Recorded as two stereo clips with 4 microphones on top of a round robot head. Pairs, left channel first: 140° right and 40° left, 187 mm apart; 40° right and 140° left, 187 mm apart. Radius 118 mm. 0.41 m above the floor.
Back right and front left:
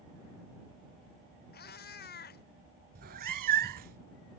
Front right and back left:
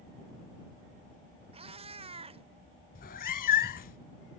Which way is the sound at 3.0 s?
Straight ahead.